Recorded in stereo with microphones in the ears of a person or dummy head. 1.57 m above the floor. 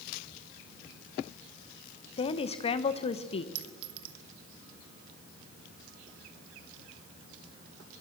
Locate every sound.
2.2 s a woman speaking: 30° left (ahead or behind), 1.2 m
3.5 s a clink: 35° right (ahead or behind), 1.4 m